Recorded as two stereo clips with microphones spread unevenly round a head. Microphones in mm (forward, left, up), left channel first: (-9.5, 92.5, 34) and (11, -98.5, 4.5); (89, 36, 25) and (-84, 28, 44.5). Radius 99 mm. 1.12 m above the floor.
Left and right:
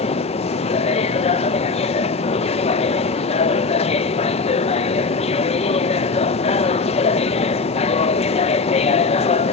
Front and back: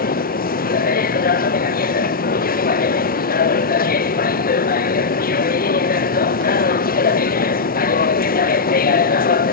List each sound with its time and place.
0.0 s a machine running: 35° left, 0.8 m